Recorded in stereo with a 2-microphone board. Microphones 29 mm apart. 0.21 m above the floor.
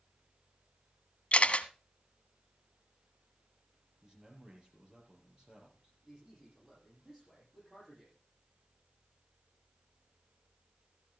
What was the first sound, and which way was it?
A camera shutter, 50° left (ahead or behind).